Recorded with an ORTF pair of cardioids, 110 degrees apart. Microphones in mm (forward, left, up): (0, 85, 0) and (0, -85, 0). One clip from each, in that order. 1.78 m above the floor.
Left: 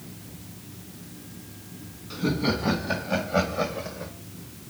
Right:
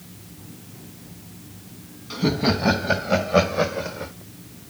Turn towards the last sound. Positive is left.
turn(degrees=-40)